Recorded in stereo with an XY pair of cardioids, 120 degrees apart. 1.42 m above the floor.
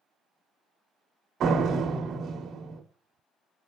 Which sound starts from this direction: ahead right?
A door slam, at 1.4 s.